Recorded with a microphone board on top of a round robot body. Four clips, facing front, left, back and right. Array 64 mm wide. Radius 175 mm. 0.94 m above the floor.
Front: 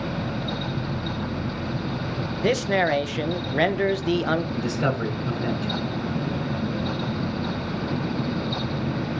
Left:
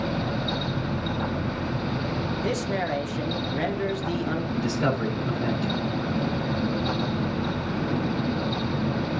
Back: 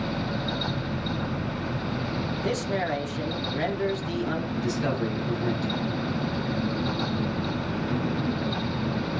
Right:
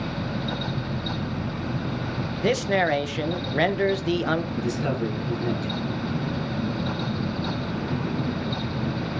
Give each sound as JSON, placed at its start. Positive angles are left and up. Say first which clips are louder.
{"t": 2.4, "sound": "a man speaking", "louder": "right 8 dB, front 8 dB", "azimuth_deg": -40, "distance_m": 1.4}
{"t": 4.5, "sound": "a man speaking", "louder": "left 1 dB, front 2 dB", "azimuth_deg": 30, "distance_m": 6.5}